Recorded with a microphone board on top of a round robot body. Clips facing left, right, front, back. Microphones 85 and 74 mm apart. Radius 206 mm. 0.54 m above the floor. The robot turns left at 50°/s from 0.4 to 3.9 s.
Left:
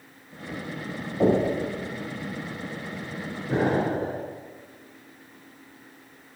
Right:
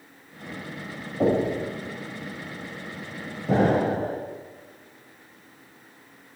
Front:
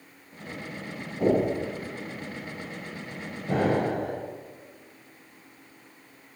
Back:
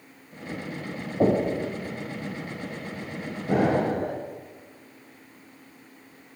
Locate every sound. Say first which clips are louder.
1.2 s knocking: left 1 dB, back 1 dB; 175° left, 3.5 m; by 1.6 s 155° left, 3.5 m
3.5 s an explosion: right 3 dB, back 2 dB; 100° right, 0.7 m; by 4.2 s 120° right, 0.7 m